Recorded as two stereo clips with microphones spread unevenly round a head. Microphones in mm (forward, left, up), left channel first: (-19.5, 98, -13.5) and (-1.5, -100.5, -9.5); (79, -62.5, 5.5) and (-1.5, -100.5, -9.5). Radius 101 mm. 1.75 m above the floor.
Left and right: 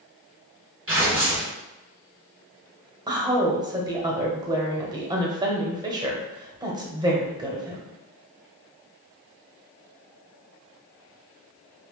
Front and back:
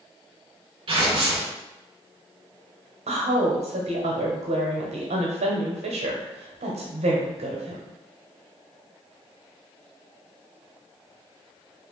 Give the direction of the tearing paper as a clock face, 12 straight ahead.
5 o'clock.